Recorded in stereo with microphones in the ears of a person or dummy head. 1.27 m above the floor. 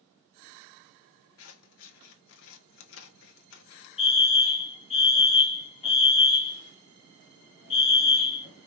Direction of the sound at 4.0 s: 25° left (ahead or behind).